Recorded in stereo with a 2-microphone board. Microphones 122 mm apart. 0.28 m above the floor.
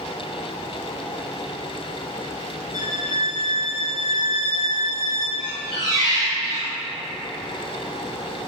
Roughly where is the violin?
Centre.